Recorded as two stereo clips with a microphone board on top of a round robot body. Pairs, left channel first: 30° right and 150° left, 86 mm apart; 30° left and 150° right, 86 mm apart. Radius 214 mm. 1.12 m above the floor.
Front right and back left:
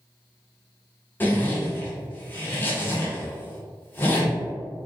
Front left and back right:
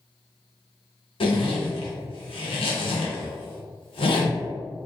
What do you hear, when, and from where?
1.2 s a zipper: 40° left, 0.9 m